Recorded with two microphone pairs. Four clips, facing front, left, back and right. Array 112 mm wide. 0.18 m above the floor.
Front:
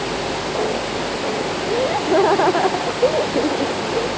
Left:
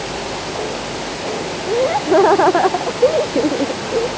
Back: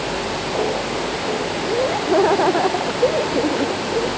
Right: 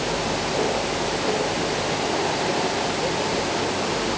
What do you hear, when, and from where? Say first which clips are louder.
1.7 s laughter: left 9 dB, even; 90° left